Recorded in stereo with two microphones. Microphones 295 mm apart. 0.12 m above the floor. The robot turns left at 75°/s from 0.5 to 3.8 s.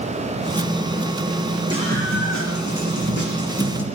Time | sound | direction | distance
1.7 | a scream | 15° right | 8 m